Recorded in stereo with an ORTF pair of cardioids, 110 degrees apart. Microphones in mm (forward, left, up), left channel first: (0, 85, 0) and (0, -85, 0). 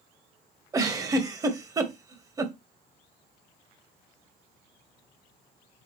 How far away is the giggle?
About 0.9 m.